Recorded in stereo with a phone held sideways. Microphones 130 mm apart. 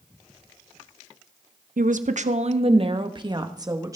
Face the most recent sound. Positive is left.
turn(degrees=-25)  # may be behind; listen again after turning